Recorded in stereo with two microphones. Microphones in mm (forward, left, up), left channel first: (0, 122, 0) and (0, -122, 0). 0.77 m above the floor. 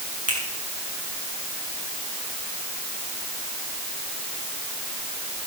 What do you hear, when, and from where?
0.3 s a finger snap: 75° right (ahead or behind), 5.5 m